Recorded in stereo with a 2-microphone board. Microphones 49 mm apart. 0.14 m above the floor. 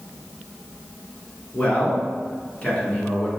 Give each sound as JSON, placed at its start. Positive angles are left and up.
{"t": 1.5, "sound": "a man speaking", "side_deg": 25, "distance_m": 1.4}